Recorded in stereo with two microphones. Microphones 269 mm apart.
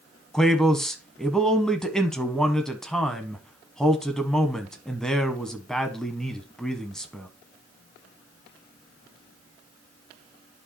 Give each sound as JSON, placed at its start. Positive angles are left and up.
{"t": 0.3, "sound": "a man speaking", "side_deg": 0, "distance_m": 1.1}